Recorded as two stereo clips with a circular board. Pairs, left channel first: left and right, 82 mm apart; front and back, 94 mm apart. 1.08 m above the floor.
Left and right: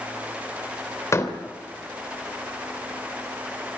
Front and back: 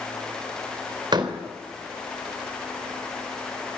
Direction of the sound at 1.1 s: 140° left.